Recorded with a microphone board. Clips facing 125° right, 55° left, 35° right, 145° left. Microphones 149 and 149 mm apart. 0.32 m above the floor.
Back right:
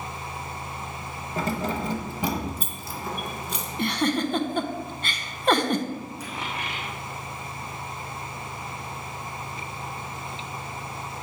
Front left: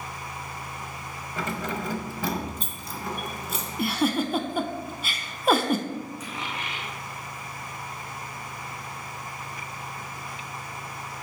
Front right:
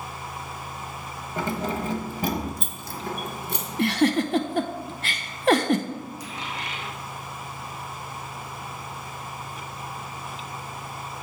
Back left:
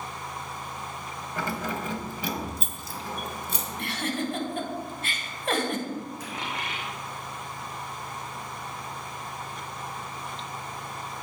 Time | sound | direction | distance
1.4 | keys jangling | 95° right | 0.8 m
3.8 | a giggle | 25° right | 0.6 m
6.2 | a dropped coin | straight behind | 2 m